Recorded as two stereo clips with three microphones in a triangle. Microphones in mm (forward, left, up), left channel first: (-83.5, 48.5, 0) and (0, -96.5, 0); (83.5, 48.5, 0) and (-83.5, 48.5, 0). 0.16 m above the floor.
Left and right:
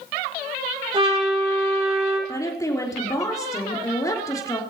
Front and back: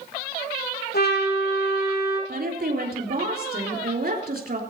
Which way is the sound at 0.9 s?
5° right.